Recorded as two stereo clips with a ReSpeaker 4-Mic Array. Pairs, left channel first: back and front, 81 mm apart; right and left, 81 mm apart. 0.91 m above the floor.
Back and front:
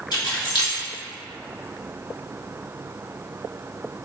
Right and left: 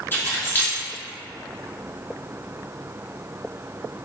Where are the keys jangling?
155° right, 1.4 m.